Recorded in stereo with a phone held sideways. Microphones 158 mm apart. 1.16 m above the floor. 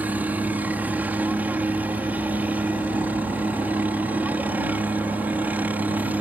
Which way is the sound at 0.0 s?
10° right (ahead or behind).